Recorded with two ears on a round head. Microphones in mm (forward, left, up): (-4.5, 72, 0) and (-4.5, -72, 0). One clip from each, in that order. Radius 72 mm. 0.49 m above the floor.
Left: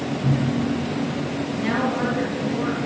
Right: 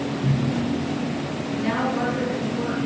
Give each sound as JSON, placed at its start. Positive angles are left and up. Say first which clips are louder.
{"t": 0.2, "sound": "a cupboard door", "louder": "left 3 dB", "side_deg": 25, "distance_m": 4.5}
{"t": 1.6, "sound": "a woman speaking", "louder": "even", "side_deg": 15, "distance_m": 7.5}